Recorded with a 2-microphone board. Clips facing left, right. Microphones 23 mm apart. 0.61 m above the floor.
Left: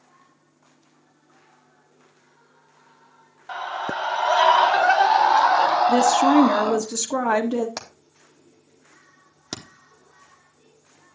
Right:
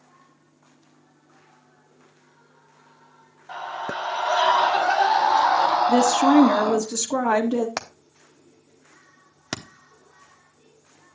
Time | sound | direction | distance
3.5 | a scream | 70° left (ahead or behind) | 3.5 m
5.9 | a woman speaking | 20° left (ahead or behind) | 1.0 m
7.8 | hammering | 45° right (ahead or behind) | 0.9 m